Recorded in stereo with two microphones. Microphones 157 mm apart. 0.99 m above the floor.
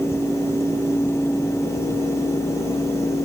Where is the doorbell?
No doorbell in this recording.